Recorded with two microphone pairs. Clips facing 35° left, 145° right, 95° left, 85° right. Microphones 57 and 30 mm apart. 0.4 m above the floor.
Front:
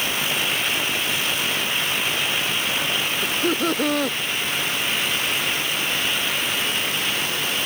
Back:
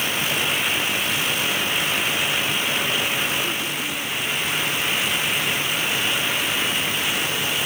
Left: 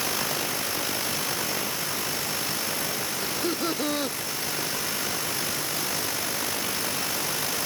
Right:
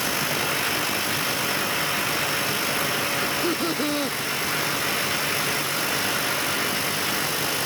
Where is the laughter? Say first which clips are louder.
Front 3 dB, right 4 dB; 10° left.